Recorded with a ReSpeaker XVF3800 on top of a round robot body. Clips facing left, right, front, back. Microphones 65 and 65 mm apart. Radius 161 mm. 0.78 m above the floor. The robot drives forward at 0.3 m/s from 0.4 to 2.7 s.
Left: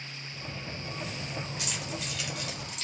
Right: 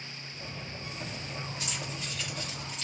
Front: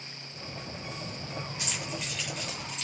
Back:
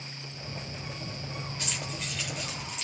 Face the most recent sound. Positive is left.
turn(degrees=100)